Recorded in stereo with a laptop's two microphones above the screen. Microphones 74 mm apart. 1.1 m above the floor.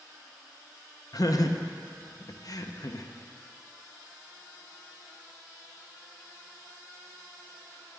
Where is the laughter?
55° left (ahead or behind), 0.6 m.